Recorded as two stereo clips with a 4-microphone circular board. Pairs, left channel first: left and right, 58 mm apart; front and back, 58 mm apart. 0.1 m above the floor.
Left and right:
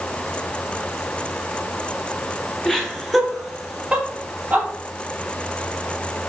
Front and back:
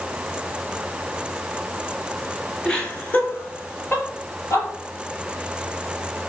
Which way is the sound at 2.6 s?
45° left.